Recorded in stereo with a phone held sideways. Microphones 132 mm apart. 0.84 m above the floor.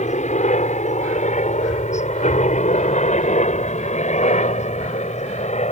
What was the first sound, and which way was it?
A helicopter, 55° left (ahead or behind).